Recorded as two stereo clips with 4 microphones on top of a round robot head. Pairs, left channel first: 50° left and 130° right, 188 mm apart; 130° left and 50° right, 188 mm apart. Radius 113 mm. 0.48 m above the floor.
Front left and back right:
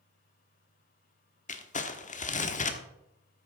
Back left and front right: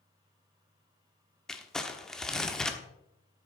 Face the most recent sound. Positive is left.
turn(degrees=40)